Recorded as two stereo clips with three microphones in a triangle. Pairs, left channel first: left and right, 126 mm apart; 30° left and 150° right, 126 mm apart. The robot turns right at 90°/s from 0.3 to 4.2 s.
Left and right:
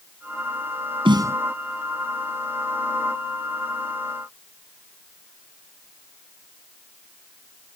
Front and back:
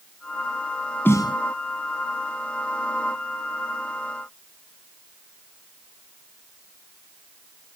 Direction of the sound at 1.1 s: 45° right.